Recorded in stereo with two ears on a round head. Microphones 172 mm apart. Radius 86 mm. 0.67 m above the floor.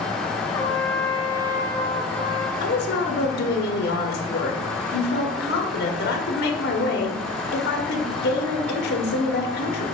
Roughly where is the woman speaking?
Left.